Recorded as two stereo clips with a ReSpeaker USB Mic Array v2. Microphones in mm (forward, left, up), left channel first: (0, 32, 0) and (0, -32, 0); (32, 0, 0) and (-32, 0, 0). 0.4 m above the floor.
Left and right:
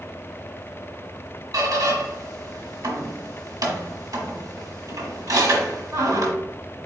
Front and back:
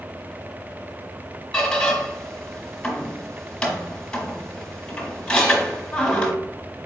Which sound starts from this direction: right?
A squeak, at 1.5 s.